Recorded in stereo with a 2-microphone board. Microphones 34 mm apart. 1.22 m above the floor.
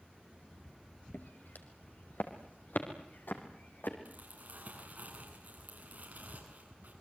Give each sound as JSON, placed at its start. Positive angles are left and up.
{"t": 1.1, "sound": "footsteps", "side_deg": 65, "distance_m": 3.0}
{"t": 4.0, "sound": "crumpling", "side_deg": -50, "distance_m": 8.5}